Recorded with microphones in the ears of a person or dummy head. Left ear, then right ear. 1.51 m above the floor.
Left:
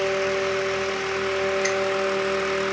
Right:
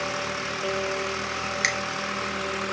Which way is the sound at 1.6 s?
70° right (ahead or behind).